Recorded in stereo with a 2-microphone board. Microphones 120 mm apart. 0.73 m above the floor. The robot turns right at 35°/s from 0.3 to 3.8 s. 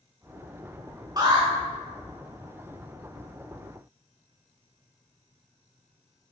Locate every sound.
1.2 s an alarm: 35° right (ahead or behind), 2.5 m; by 1.5 s 45° right (ahead or behind), 2.5 m